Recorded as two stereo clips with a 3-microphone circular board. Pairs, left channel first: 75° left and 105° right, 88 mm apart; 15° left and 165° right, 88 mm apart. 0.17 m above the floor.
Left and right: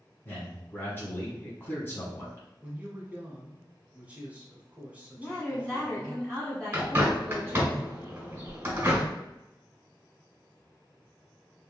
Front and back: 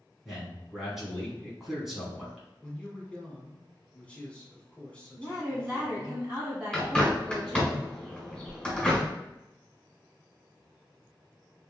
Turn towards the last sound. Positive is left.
turn(degrees=-50)